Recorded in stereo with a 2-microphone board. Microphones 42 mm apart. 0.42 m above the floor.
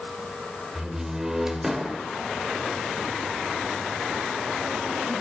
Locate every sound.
0.8 s a door slam: 10° right (ahead or behind), 1.2 m